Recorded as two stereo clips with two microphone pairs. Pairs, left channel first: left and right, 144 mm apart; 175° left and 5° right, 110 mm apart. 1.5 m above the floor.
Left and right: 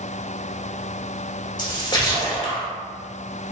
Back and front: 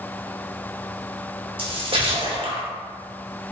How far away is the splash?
About 0.8 m.